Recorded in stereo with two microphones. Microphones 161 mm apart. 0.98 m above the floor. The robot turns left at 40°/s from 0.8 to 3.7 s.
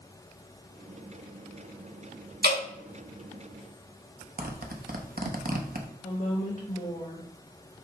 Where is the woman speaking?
50° left (ahead or behind), 1.0 m.